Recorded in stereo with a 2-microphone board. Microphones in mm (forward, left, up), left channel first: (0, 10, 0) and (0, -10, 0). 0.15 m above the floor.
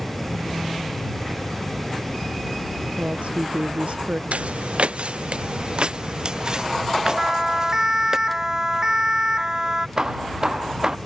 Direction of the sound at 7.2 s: 25° right (ahead or behind).